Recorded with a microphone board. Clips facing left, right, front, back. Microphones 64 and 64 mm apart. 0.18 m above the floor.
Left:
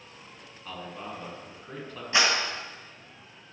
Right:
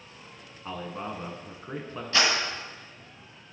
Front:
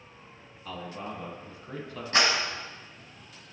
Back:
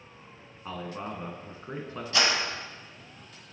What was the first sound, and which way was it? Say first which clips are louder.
A man speaking: right 4 dB, back 2 dB; 140° right.